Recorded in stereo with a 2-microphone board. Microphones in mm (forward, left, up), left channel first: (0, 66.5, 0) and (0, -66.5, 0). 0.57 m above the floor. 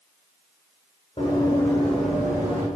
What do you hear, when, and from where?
1.2 s running footsteps: 40° left (ahead or behind), 1.7 m; by 2.6 s 20° right (ahead or behind), 2.5 m